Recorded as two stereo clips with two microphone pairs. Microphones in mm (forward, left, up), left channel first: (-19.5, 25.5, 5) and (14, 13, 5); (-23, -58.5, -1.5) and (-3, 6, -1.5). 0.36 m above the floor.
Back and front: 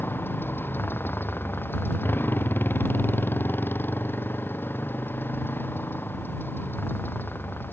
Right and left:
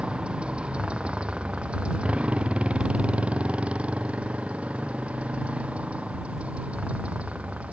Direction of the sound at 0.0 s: 145° left.